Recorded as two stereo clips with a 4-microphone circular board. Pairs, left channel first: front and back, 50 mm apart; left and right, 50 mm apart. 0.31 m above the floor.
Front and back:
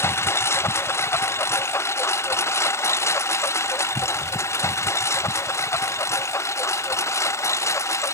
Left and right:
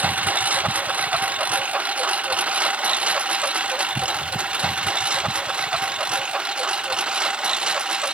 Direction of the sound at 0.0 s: 30° right.